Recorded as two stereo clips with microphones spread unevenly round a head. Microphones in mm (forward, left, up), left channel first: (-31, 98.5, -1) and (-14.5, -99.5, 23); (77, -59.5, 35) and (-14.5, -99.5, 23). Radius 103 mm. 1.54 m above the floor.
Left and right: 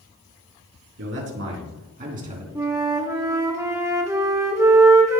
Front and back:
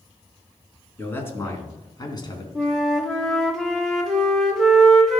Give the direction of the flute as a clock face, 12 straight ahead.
2 o'clock.